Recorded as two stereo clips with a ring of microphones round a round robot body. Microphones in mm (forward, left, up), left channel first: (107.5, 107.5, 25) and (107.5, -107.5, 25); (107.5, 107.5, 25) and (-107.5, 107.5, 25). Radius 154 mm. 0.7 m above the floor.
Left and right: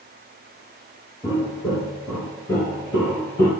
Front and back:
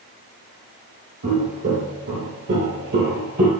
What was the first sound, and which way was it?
Footsteps, 170° right.